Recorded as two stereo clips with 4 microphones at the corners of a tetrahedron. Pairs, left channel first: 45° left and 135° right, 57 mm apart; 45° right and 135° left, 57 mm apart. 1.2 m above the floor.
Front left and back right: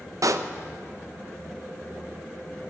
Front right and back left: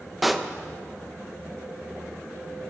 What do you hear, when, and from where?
0.2 s a pop: 135° right, 0.5 m